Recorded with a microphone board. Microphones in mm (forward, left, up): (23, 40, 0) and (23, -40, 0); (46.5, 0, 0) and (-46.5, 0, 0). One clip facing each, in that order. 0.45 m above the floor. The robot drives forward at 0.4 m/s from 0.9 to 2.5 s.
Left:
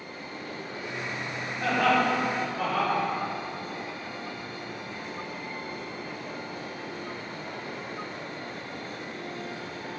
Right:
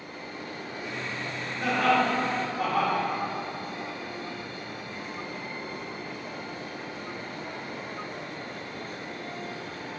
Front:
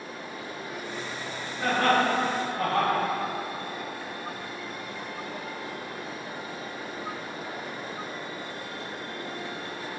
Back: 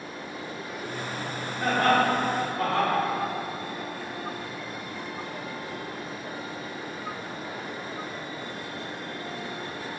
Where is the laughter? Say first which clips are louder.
Even, back 1 dB; 155° right, 0.9 m; by 3.0 s 170° right, 1.1 m.